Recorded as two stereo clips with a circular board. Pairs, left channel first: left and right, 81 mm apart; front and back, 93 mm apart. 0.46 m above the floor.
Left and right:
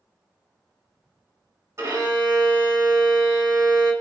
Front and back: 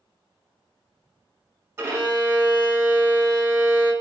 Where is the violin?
125° right, 1.1 m.